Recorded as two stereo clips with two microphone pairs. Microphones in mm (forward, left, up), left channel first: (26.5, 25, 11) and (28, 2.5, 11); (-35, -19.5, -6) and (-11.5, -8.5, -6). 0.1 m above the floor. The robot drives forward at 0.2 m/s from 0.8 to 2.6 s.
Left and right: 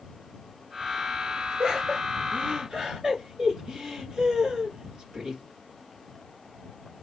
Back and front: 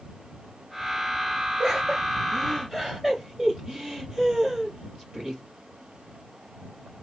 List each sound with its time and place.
1.6 s laughter: 50° right, 1.9 m; by 5.4 s 60° right, 1.9 m